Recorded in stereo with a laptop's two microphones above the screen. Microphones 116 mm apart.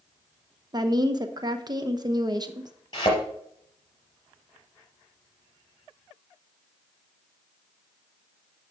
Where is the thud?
40° left (ahead or behind), 4.5 m.